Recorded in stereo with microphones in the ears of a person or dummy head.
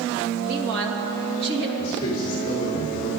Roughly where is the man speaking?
Left.